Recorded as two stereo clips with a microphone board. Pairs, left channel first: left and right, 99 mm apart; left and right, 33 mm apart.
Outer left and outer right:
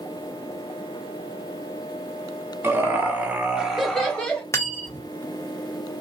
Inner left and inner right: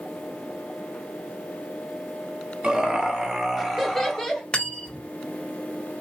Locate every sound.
2.6 s laughter: 25° right (ahead or behind), 1.3 m; by 4.4 s 20° left (ahead or behind), 0.9 m
4.5 s cutlery clinking: 30° left (ahead or behind), 0.6 m